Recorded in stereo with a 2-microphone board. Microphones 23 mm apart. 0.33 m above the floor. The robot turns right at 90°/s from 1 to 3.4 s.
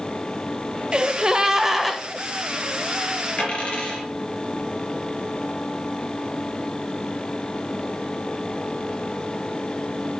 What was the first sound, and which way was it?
A gasp, 90° right.